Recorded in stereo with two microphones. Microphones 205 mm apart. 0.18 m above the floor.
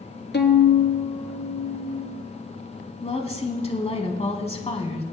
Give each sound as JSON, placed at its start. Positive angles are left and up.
{"t": 0.3, "sound": "a violin", "side_deg": 60, "distance_m": 1.0}
{"t": 3.0, "sound": "a woman speaking", "side_deg": 30, "distance_m": 1.3}